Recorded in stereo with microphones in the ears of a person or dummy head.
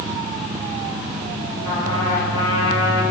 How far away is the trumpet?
About 4.5 m.